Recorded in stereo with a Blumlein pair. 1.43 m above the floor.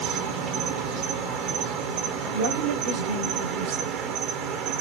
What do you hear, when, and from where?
0.0 s an insect: 40° right, 1.0 m
2.3 s a woman speaking: 45° right, 1.1 m